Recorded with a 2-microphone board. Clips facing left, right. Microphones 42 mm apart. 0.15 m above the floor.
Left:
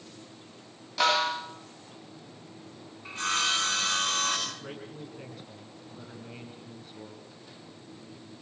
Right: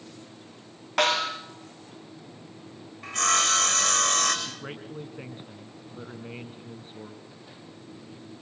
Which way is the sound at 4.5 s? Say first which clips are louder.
Right 2 dB; 30° right (ahead or behind).